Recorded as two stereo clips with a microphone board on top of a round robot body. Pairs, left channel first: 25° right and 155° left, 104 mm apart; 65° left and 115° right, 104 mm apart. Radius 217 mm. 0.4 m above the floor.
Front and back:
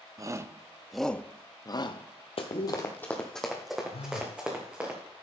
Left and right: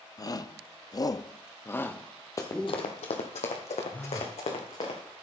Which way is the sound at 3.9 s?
5° right.